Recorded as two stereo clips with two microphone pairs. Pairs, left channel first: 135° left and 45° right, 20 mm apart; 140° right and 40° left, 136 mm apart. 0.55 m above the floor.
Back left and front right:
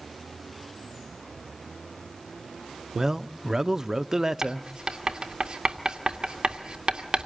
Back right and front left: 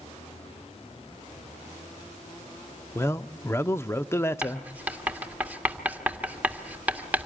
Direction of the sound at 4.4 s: 30° right.